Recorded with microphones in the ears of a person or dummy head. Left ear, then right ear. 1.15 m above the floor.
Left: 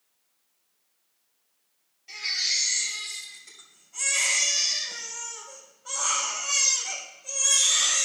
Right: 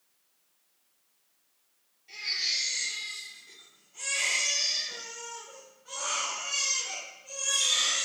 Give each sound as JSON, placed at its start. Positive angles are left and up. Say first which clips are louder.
{"t": 2.1, "sound": "a baby crying", "louder": "left 3 dB", "side_deg": 30, "distance_m": 2.5}